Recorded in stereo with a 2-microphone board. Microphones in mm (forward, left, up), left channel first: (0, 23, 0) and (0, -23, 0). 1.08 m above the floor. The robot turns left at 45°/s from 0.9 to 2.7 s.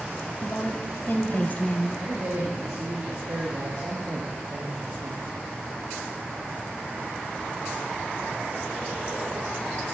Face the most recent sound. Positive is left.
turn(degrees=-100)